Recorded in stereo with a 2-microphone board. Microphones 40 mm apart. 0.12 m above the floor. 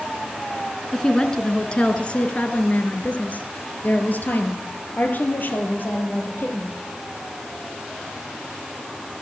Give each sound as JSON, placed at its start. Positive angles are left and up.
{"t": 0.9, "sound": "a woman speaking", "side_deg": 10, "distance_m": 1.4}